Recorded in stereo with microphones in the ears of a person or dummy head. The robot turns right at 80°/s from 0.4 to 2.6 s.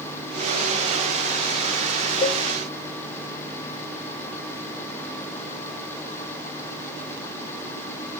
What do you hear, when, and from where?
2.2 s a cowbell: 25° left (ahead or behind), 0.5 m; by 2.4 s 10° left (ahead or behind), 0.5 m